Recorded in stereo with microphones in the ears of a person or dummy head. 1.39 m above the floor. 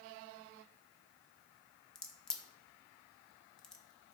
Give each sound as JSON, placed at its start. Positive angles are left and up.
{"t": 1.9, "sound": "a crack", "side_deg": 5, "distance_m": 0.5}